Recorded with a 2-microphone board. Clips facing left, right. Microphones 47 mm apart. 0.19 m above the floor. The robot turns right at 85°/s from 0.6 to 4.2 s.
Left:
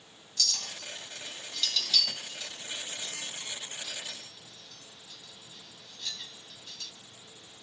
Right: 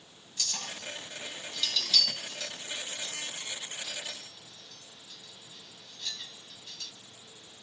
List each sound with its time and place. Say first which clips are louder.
0.4 s a clink: left 1 dB; 25° right (ahead or behind), 0.6 m; by 6.9 s 10° right (ahead or behind), 0.6 m